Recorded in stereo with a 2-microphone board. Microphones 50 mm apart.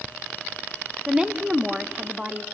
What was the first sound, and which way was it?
A woman speaking, 15° right (ahead or behind).